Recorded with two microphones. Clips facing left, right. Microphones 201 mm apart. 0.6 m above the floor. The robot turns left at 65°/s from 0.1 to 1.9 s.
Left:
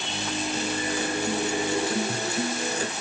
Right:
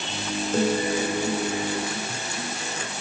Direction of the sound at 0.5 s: 130° right.